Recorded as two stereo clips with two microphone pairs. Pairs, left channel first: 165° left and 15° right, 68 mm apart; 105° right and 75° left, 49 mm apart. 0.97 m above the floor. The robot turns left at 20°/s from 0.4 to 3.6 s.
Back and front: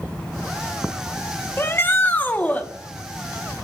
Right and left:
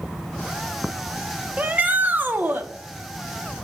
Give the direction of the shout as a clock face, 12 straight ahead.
8 o'clock.